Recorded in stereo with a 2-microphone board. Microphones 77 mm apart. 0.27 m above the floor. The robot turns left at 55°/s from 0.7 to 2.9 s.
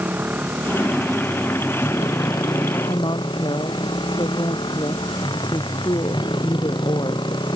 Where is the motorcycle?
155° right; by 7.6 s 80° left.